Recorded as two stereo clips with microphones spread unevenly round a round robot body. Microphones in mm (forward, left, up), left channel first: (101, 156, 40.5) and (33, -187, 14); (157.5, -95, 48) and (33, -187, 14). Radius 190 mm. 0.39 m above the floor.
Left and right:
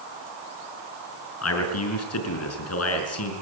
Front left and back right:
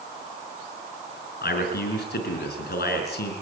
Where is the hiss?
I don't hear a hiss.